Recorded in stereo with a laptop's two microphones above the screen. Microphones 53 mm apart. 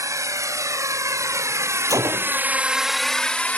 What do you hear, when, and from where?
0.0 s a drone: 75° right (ahead or behind); by 3.6 s 25° left (ahead or behind)
1.9 s a gunshot: 70° right (ahead or behind)